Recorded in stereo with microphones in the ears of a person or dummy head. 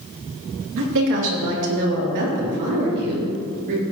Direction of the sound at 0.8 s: 70° right (ahead or behind).